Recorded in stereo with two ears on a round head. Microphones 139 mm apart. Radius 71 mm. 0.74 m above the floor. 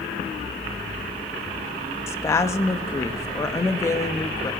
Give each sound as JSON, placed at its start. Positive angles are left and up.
{"t": 2.1, "sound": "a woman speaking", "side_deg": 20, "distance_m": 0.9}